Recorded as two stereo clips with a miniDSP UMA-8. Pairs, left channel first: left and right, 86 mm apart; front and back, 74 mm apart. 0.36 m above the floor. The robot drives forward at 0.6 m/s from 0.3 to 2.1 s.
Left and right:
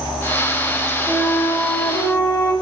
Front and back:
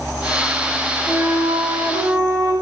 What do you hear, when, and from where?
1.1 s a flute: 145° left, 4.5 m; by 2.5 s 150° left, 5 m